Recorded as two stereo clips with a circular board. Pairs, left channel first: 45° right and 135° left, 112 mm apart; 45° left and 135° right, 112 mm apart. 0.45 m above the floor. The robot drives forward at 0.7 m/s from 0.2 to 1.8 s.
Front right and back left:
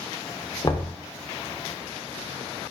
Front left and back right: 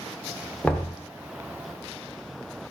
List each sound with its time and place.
0.6 s knocking: 30° right, 0.6 m; by 0.9 s 55° right, 0.5 m